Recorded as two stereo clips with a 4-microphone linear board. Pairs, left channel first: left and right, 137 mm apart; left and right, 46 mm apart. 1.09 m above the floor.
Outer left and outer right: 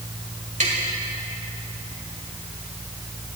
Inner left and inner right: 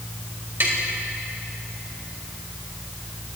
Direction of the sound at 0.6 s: 60° right (ahead or behind).